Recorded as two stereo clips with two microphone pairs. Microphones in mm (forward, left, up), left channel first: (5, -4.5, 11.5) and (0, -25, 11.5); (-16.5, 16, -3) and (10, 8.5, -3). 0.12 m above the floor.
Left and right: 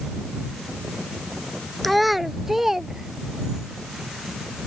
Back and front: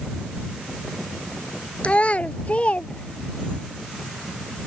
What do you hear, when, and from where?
1.8 s a child speaking: 165° left; by 3.7 s 155° right